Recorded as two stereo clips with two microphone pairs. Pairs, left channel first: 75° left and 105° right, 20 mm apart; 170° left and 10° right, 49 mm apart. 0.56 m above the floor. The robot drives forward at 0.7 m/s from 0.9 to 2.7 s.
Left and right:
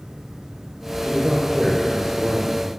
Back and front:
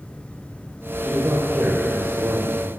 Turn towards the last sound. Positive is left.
turn(degrees=-40)